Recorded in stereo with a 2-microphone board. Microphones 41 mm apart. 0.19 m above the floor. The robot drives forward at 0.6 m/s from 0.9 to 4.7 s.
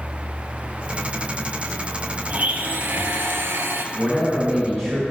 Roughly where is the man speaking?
Centre.